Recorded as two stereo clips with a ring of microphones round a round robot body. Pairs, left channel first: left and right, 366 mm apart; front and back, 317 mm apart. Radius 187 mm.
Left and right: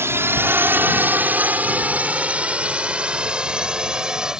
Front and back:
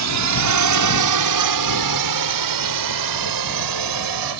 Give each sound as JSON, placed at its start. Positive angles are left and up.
{"t": 0.0, "sound": "a drone", "azimuth_deg": -170}